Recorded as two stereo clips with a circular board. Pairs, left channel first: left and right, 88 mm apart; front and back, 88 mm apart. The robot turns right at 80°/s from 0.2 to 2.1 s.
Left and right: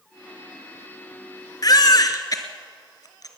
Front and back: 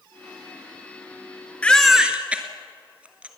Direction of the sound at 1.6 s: 70° left.